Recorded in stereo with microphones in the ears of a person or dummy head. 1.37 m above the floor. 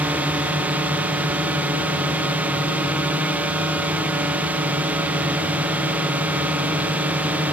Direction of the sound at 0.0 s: 10° right (ahead or behind).